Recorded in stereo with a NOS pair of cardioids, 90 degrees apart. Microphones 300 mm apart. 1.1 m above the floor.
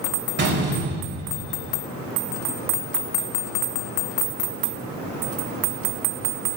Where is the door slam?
35° right, 4 m.